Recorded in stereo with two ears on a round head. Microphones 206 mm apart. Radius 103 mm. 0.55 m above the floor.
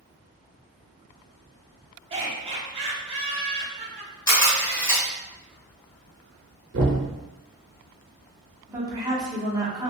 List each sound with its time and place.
2.1 s laughter: 25° right (ahead or behind), 1.2 m
4.3 s a camera shutter: 15° left (ahead or behind), 1.6 m
6.7 s knocking: 55° right (ahead or behind), 0.8 m
8.7 s a woman speaking: 15° right (ahead or behind), 1.0 m